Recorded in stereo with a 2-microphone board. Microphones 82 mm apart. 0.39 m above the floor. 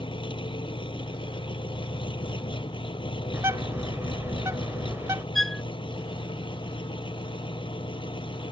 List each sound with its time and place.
0.0 s an engine running: 85° left
3.3 s a bird: 35° right (ahead or behind)
5.3 s a violin: 5° left (ahead or behind)